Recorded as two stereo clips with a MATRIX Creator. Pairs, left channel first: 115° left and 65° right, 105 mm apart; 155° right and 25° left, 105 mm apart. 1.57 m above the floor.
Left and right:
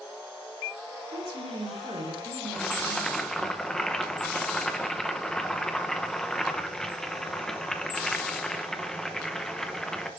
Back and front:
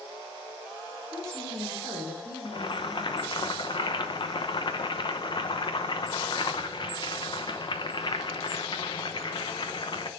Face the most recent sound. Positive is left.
turn(degrees=-165)